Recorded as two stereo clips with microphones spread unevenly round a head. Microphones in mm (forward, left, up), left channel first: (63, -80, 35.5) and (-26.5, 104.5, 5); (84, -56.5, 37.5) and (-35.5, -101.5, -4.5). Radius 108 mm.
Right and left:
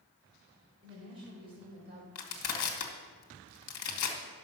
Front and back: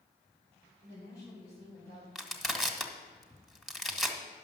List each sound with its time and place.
0.8 s a woman speaking: 50° left, 5 m; by 2.0 s 55° left, 5.5 m
2.1 s crushing: 60° right, 1.5 m